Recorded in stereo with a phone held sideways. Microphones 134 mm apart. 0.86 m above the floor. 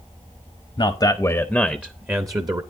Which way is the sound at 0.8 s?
45° left (ahead or behind).